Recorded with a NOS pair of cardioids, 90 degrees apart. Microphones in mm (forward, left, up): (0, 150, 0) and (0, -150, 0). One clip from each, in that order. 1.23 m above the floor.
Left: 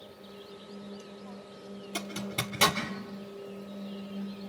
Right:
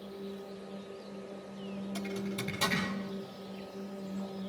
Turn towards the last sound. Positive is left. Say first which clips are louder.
# left 5 dB
turn(degrees=70)